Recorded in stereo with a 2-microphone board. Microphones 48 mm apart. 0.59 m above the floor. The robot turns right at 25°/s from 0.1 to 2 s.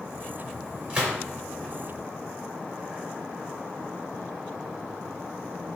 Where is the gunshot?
25° right (ahead or behind), 1.4 m; by 1.2 s 20° right (ahead or behind), 1.4 m.